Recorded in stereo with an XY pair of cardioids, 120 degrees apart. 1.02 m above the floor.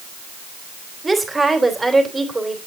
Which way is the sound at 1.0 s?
15° right.